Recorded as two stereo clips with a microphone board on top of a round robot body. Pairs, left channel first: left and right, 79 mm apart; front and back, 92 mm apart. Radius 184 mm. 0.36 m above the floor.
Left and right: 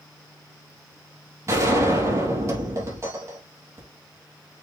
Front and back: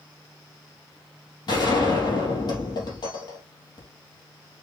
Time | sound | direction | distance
1.5 | a gunshot | 40° right | 4 m